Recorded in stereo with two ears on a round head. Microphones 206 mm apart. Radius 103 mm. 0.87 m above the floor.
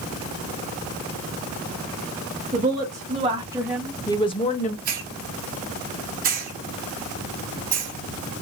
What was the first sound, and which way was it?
A woman speaking, 35° right (ahead or behind).